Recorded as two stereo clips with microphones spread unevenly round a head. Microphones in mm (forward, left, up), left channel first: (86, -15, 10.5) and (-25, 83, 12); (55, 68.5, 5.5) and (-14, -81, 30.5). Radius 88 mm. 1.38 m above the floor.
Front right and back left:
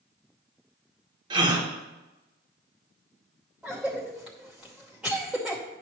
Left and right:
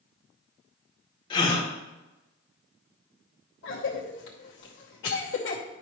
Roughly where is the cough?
Ahead left.